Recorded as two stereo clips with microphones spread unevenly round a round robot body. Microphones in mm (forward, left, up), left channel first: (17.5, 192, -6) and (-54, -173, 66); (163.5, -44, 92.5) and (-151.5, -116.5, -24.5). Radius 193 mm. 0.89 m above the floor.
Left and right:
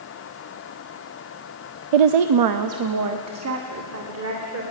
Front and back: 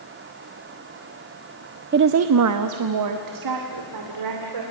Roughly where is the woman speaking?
Behind right.